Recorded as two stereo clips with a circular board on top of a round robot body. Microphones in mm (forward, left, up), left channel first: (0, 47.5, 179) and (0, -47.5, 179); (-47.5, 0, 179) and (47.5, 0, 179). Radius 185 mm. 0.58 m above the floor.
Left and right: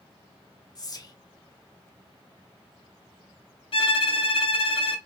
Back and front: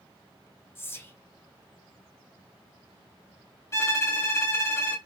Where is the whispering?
120° left, 0.8 m.